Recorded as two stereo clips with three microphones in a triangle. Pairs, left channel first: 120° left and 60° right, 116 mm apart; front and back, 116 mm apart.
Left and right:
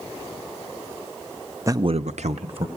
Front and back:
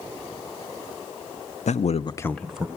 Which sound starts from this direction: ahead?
A man speaking, at 1.7 s.